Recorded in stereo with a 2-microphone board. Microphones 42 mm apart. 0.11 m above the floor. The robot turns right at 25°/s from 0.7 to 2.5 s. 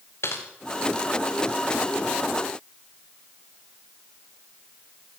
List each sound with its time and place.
0.2 s typing on a keyboard: 85° left, 6.5 m